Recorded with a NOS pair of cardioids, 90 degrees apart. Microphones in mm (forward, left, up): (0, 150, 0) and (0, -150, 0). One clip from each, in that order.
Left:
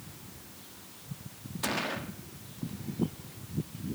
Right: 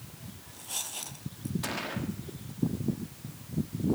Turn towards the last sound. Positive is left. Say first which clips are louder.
# left 3 dB
turn(degrees=15)